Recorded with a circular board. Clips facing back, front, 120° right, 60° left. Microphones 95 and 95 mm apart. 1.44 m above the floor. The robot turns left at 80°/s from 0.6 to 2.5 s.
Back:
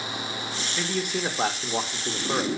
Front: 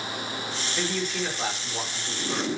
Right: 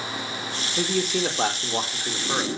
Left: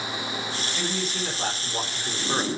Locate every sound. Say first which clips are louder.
0.8 s a man speaking: back 1 dB, right 8 dB; 80° right, 3.5 m; by 2.5 s 140° left, 3.5 m